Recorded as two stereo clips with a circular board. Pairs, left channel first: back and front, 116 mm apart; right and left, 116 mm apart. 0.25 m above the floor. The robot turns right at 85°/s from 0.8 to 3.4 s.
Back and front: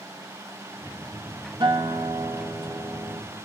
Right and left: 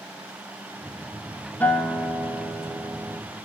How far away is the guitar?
About 0.6 m.